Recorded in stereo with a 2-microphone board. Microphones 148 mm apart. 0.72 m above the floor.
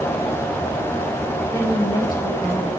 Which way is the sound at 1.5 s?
25° left (ahead or behind).